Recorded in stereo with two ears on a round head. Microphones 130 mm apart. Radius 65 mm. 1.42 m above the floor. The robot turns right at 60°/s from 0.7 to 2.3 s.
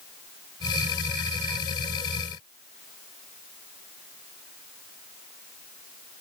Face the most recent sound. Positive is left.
No sound to turn to.